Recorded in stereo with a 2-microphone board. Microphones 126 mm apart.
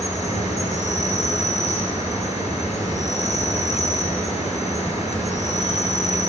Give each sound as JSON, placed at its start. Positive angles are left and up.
{"t": 0.0, "sound": "an insect", "side_deg": 70, "distance_m": 4.5}